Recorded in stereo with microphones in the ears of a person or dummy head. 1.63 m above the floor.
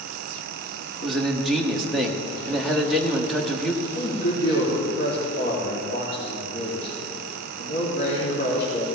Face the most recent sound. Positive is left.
turn(degrees=60)  # may be behind; listen again after turning